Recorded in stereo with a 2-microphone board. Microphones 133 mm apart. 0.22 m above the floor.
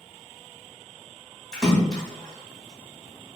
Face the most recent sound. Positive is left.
turn(degrees=5)  # may be behind; listen again after turning